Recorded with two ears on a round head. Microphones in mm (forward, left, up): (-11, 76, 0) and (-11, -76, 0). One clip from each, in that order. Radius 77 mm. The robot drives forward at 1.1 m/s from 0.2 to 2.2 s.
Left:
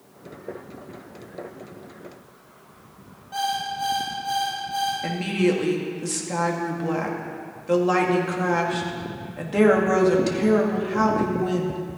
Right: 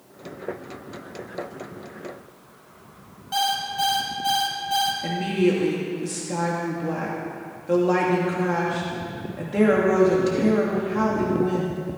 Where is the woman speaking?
30° left (ahead or behind), 2.5 m.